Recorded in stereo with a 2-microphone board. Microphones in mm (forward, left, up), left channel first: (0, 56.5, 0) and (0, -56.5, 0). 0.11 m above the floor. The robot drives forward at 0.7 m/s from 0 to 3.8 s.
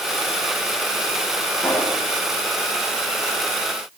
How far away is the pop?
About 7.5 m.